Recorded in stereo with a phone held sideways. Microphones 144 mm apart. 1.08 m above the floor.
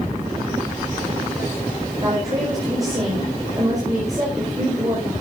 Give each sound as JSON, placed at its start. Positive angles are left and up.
{"t": 2.0, "sound": "a woman speaking", "side_deg": -25, "distance_m": 5.0}